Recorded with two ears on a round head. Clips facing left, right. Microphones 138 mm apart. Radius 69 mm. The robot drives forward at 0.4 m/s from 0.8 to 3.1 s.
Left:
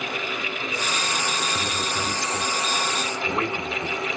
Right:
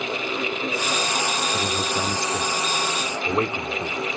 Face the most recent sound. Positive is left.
turn(degrees=-15)  # may be behind; listen again after turning